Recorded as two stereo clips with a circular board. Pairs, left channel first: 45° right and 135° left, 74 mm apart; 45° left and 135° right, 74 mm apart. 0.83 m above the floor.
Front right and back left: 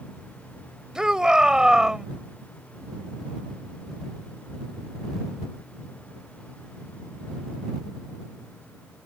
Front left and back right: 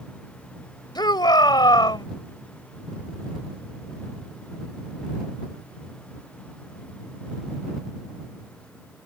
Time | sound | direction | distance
0.9 | a shout | 55° left | ?